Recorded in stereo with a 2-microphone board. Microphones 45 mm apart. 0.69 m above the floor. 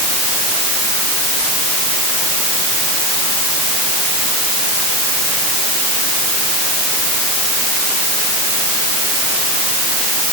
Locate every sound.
Only background noise.